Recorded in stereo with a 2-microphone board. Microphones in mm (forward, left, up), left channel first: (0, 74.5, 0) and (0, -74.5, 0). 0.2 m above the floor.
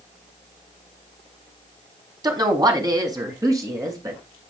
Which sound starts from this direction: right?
A woman speaking, at 2.2 s.